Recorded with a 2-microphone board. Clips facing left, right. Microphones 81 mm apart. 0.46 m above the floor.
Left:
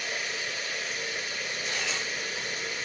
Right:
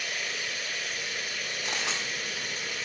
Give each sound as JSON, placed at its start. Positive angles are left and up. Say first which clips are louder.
{"t": 0.0, "sound": "running water", "louder": "left 1 dB", "side_deg": 30, "distance_m": 3.0}
{"t": 1.6, "sound": "a camera shutter", "louder": "right 1 dB", "side_deg": -75, "distance_m": 3.0}